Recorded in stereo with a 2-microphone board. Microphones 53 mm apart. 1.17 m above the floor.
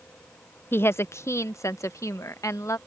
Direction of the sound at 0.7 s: 45° left (ahead or behind).